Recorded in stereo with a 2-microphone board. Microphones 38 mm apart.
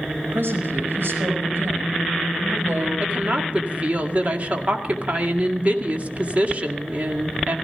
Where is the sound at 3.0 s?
40° right (ahead or behind), 2 m.